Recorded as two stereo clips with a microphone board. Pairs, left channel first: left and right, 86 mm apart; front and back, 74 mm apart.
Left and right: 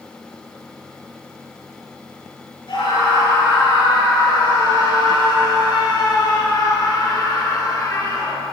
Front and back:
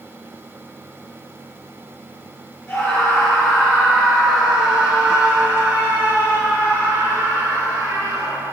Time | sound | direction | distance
2.7 | a scream | 80° left | 6 m